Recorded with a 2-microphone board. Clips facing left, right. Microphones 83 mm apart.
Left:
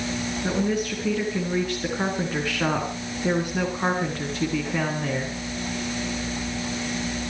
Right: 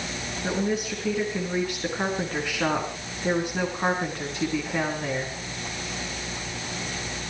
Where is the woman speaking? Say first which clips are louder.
Left 1 dB; centre (ahead or behind), 3.5 m.